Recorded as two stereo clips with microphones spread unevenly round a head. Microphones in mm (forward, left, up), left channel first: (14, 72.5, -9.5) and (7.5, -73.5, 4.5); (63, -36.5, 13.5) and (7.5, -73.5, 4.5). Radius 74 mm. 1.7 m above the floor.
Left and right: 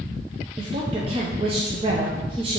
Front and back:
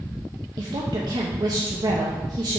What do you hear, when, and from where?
0.6 s a woman speaking: 140° right, 0.8 m